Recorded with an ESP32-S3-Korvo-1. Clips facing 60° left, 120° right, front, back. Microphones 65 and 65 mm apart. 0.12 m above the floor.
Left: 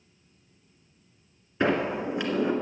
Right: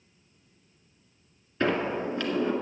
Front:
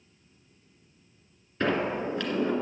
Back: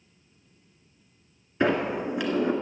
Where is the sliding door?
120° left, 1.6 m.